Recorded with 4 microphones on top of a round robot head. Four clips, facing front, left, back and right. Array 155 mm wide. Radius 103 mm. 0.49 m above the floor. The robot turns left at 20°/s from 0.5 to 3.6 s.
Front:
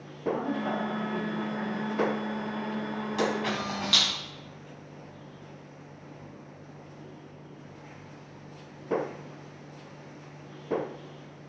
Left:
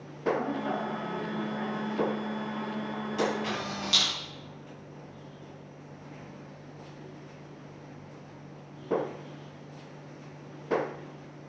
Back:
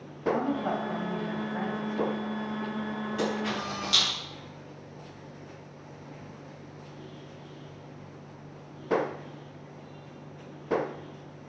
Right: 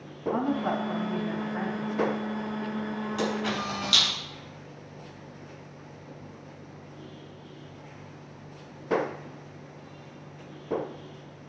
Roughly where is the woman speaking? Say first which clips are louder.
Right 4 dB, back 2 dB; behind right.